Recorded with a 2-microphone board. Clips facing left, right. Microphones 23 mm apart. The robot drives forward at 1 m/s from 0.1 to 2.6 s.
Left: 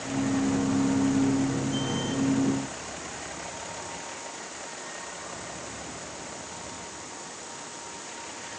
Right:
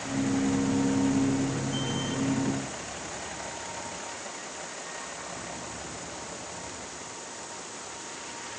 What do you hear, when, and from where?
Only background noise.